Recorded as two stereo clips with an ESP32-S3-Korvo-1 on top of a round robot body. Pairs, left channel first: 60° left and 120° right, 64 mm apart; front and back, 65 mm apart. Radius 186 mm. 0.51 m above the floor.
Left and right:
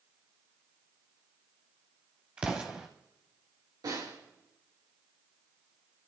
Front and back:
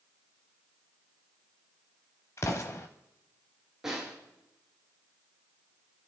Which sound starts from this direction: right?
A snare drum, at 3.8 s.